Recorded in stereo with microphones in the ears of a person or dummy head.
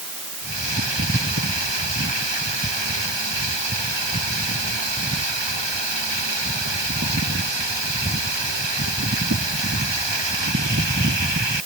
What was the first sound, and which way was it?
Only background noise.